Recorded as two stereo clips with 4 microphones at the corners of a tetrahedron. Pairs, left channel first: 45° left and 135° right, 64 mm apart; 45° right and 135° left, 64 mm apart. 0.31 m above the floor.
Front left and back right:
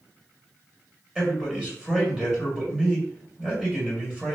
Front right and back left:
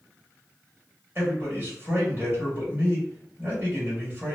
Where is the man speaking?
160° left, 1.7 m.